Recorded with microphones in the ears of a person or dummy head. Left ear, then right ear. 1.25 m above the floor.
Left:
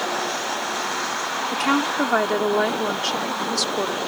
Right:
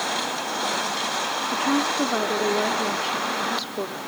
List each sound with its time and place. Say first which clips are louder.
1.5 s a woman speaking: left 3 dB; 50° left (ahead or behind)